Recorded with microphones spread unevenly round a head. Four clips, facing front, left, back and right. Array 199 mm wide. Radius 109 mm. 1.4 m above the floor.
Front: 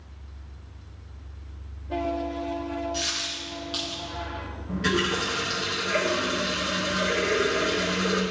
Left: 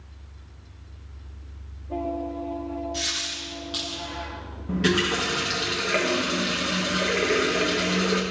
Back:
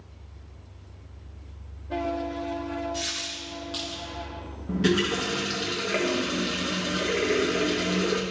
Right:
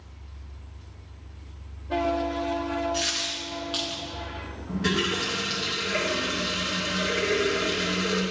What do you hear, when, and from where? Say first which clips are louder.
2.9 s a dropped coin: right 3 dB, front 1 dB; 105° right, 1.5 m
4.7 s a running tap: left 4 dB, back 2 dB; 145° left, 1.1 m